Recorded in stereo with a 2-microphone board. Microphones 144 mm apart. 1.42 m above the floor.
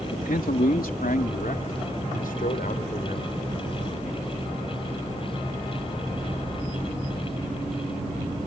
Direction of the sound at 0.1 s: 80° left.